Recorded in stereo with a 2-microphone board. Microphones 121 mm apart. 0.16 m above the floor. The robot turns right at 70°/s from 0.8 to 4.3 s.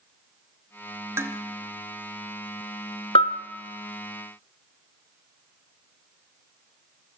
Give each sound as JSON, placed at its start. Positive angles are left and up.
{"t": 1.2, "sound": "dishes clattering", "side_deg": -25, "distance_m": 1.5}
{"t": 3.1, "sound": "a bell", "side_deg": 50, "distance_m": 1.2}